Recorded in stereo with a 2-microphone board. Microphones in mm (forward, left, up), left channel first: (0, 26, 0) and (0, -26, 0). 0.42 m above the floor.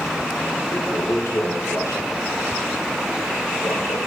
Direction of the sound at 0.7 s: 80° left.